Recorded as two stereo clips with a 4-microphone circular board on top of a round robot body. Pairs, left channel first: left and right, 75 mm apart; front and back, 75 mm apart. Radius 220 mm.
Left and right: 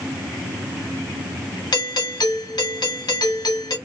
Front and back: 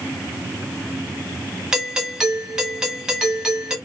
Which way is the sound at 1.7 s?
100° left.